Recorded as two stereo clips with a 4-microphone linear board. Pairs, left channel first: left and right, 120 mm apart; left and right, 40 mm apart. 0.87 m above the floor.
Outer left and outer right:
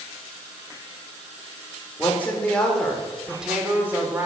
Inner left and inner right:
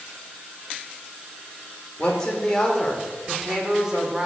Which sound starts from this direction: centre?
A woman speaking, at 2.0 s.